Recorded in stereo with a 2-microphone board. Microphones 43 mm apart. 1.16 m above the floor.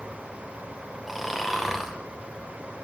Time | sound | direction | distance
1.1 | snoring | centre (ahead or behind) | 0.8 m